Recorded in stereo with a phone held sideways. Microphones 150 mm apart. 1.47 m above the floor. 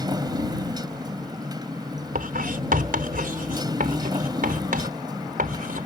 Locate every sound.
0.0 s a motorcycle: 30° right (ahead or behind)
2.1 s writing: 70° right (ahead or behind)